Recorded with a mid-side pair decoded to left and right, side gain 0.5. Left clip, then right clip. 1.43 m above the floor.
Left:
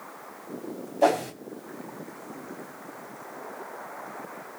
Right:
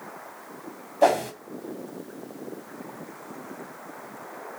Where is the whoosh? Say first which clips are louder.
Right 2 dB; 20° right, 3.5 m.